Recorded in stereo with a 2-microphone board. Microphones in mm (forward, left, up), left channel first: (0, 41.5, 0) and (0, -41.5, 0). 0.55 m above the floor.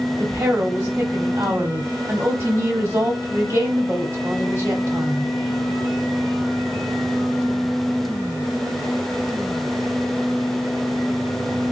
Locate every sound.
0.2 s a woman speaking: 30° right (ahead or behind), 1.3 m